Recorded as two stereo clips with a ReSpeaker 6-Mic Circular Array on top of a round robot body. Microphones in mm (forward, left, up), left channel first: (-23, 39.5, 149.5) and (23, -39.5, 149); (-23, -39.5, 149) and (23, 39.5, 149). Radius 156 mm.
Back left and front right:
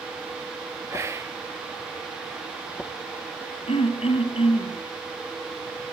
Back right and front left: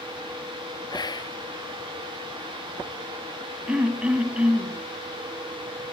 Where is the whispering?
110° right, 1.3 m.